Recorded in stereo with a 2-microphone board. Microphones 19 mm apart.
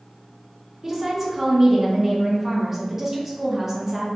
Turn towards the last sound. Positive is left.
turn(degrees=-15)  # may be behind; listen again after turning